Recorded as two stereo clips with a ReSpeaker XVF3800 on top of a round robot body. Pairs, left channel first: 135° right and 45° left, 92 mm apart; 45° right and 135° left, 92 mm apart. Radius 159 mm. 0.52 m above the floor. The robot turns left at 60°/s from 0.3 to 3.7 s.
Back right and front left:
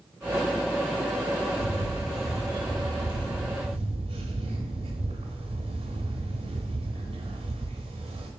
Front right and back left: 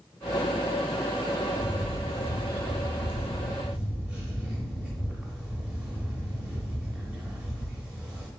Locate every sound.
1.6 s a camera shutter: straight behind, 0.6 m; by 8.3 s 55° left, 0.6 m